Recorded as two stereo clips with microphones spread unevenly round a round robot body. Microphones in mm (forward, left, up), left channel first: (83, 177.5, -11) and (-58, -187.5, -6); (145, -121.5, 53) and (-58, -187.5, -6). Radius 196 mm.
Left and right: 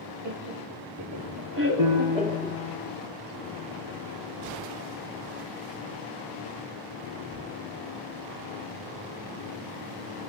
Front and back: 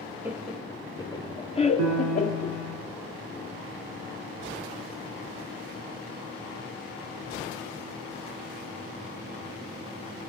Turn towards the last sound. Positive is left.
turn(degrees=-155)